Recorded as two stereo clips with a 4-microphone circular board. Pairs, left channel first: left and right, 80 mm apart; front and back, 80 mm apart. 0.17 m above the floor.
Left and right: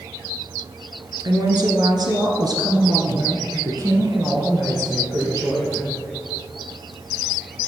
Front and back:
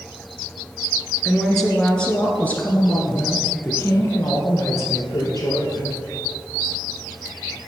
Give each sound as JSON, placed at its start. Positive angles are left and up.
{"t": 1.2, "sound": "a woman speaking", "azimuth_deg": -90, "distance_m": 1.8}